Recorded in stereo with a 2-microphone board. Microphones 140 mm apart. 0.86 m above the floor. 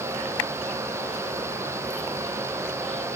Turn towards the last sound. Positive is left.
No sound to turn to.